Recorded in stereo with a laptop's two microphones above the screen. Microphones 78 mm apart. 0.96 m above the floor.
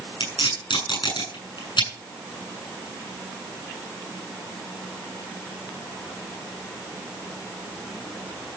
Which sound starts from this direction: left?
Tape being pulled, at 0.2 s.